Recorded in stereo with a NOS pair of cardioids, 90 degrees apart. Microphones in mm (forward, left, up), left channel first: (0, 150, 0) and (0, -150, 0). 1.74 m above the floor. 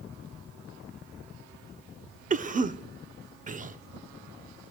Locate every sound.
2.3 s a cough: 25° right, 1.2 m